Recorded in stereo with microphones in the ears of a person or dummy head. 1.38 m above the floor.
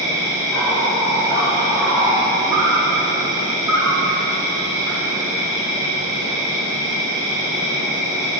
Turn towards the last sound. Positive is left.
turn(degrees=-20)  # may be behind; listen again after turning